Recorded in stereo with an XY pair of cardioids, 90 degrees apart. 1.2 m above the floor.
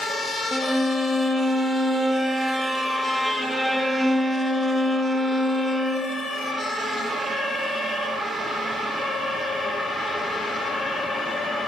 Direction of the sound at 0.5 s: 5° right.